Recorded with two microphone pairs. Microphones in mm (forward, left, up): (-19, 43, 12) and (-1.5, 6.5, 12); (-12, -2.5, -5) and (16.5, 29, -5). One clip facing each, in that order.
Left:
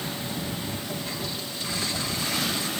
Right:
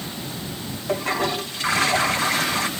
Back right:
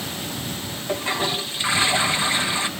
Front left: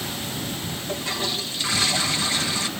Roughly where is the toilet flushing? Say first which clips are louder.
Right 9 dB, back right 5 dB; ahead right.